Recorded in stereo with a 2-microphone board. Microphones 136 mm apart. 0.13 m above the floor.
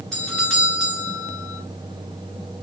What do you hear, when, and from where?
0.1 s a doorbell: 5° left (ahead or behind), 2 m